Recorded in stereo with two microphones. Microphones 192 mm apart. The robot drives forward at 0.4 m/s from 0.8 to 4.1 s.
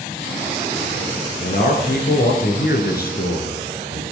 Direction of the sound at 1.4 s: 55° left (ahead or behind).